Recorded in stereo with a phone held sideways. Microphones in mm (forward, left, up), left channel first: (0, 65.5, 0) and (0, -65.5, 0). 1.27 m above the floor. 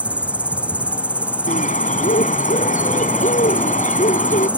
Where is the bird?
75° left (ahead or behind).